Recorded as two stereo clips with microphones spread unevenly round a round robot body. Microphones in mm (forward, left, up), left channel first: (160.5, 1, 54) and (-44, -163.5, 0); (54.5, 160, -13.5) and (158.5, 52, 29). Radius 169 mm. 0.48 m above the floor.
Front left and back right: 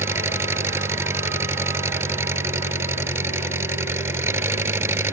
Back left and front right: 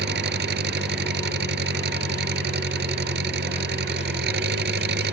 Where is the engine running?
60° right.